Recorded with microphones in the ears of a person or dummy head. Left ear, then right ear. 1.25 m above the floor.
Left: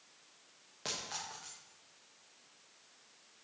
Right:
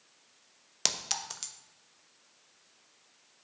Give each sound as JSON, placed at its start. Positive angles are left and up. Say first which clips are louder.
{"t": 0.8, "sound": "a clink", "louder": "right 8 dB", "side_deg": -75, "distance_m": 0.8}